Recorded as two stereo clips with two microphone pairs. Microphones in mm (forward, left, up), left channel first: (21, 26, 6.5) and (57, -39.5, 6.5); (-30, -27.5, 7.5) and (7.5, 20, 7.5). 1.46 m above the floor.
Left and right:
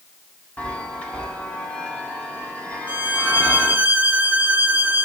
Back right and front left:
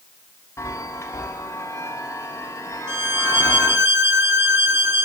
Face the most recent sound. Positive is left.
turn(degrees=0)